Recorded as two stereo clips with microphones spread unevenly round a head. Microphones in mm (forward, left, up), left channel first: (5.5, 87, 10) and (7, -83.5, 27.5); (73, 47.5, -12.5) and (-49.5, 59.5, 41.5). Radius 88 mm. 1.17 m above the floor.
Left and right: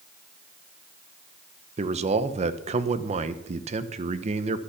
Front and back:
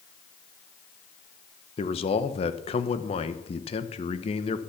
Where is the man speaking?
35° right, 0.8 m.